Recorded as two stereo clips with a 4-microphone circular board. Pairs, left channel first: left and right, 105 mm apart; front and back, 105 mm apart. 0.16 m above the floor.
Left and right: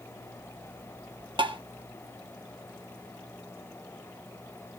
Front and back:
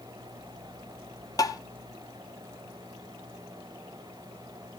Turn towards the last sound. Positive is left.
turn(degrees=-55)